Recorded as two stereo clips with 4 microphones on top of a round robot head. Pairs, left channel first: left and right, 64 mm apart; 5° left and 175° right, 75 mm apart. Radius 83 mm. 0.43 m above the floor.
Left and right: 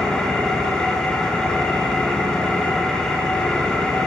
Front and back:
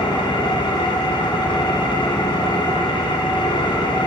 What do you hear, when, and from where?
0.0 s an engine running: 10° left, 4.5 m